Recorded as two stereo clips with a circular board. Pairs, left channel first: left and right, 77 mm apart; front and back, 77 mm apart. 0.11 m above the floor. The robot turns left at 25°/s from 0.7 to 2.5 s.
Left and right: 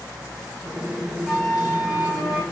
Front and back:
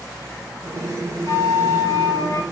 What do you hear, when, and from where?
1.2 s a flute: 5° left, 1.7 m; by 2.4 s 25° right, 1.7 m